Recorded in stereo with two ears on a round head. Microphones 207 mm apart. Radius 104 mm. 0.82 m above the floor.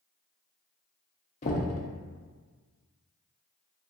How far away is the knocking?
About 0.6 m.